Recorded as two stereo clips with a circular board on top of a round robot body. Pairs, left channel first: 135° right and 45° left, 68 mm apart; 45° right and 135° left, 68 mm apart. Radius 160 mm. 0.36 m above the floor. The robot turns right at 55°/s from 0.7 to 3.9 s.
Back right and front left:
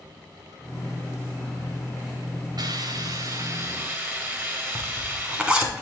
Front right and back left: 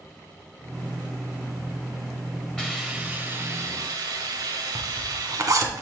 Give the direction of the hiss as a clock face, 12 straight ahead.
11 o'clock.